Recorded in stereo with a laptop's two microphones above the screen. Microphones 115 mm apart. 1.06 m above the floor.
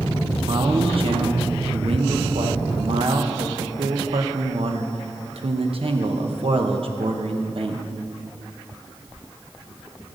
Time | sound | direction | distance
0.5 | a man speaking | 60° right (ahead or behind) | 1.0 m